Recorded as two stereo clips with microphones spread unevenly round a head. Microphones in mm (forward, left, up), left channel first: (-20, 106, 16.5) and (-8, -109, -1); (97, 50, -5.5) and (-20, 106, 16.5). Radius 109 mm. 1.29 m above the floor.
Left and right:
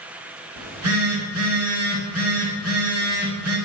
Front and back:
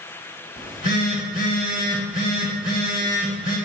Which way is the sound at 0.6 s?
95° right.